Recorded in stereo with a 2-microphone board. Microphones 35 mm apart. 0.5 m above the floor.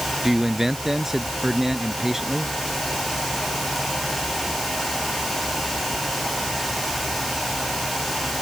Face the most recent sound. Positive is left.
turn(degrees=-10)  # may be behind; listen again after turning